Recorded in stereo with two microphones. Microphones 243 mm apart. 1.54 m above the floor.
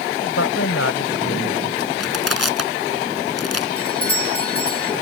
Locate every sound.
0.2 s a woman speaking: 70° left (ahead or behind)
2.0 s crushing: 80° left
3.8 s a doorbell: 65° right (ahead or behind)